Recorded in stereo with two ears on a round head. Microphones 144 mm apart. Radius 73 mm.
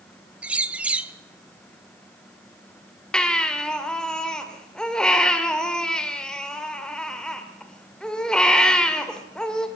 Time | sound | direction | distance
0.4 | a bird | 10° right (ahead or behind) | 0.6 m
3.1 | a baby crying | 5° left (ahead or behind) | 2 m